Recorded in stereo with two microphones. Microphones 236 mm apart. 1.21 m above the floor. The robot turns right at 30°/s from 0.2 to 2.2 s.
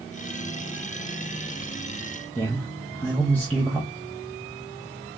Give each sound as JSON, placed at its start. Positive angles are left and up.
{"t": 2.4, "sound": "a man speaking", "side_deg": 5, "distance_m": 0.8}